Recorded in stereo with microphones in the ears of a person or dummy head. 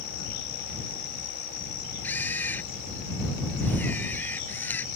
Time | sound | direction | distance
2.0 | a camera shutter | 5° left (ahead or behind) | ?